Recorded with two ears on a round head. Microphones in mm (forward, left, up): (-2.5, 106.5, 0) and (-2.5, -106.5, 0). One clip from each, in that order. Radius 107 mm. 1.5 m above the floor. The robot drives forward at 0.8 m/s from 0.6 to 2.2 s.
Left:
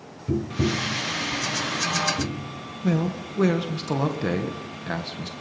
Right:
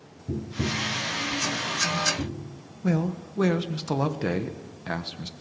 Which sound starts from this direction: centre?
A man speaking, at 2.8 s.